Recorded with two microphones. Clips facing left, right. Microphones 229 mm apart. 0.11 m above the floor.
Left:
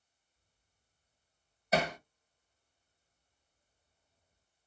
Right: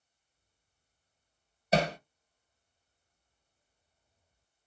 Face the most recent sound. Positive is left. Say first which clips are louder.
# right 3 dB
turn(degrees=-30)  # may be behind; listen again after turning